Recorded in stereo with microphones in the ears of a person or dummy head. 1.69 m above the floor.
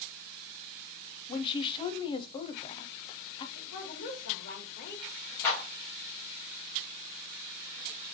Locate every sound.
1.3 s a woman speaking: 30° left (ahead or behind), 0.6 m
3.5 s a woman speaking: 45° left (ahead or behind), 2 m
5.4 s a clap: 10° left (ahead or behind), 2.5 m